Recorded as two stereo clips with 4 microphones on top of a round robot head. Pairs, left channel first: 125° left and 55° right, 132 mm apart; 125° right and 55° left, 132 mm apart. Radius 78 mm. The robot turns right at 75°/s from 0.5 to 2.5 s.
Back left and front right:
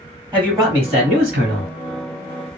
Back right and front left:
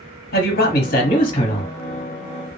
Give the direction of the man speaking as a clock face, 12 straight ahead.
4 o'clock.